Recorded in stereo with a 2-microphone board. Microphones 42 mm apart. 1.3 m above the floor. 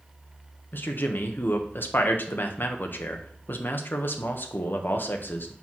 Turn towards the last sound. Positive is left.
turn(degrees=55)  # may be behind; listen again after turning